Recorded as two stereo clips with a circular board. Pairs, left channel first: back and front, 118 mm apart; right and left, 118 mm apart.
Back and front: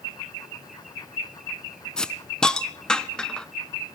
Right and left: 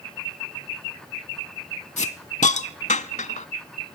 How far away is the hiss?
About 0.6 m.